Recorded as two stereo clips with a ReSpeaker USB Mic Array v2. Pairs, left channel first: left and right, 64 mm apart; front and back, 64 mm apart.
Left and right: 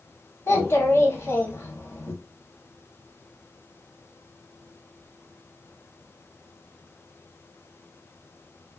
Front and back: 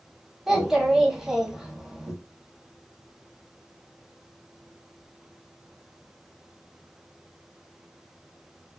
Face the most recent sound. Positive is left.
turn(degrees=100)